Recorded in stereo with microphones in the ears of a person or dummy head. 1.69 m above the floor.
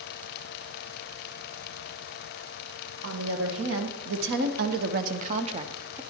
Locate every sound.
3.0 s a woman speaking: 80° right, 2 m; by 6.0 s 10° right (ahead or behind), 0.7 m